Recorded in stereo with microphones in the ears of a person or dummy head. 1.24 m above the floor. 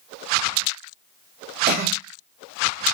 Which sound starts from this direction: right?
A cough, at 1.7 s.